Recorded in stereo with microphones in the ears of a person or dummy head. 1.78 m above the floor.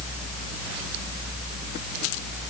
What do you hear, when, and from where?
Only background noise.